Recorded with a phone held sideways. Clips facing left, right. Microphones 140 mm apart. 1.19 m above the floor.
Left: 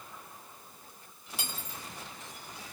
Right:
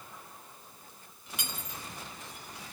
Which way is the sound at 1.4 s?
30° left (ahead or behind).